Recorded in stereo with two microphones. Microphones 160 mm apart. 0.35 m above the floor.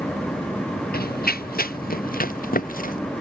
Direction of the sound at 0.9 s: 70° left (ahead or behind).